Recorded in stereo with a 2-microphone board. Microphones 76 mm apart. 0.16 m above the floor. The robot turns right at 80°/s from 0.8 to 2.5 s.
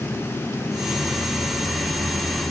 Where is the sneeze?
No sneeze in this recording.